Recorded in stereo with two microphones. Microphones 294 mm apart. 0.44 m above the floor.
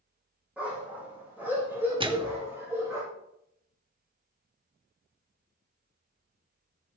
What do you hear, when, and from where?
0.6 s a dog barking: 5° right (ahead or behind), 5 m; by 3.0 s 10° right (ahead or behind), 6.5 m
2.0 s a microwave: 15° right (ahead or behind), 0.8 m